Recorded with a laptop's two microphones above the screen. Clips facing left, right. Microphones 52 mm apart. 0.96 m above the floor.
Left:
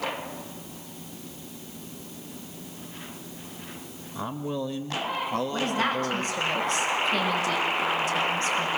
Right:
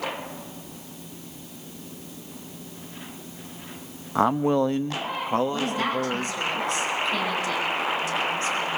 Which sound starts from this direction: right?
A man speaking, at 4.2 s.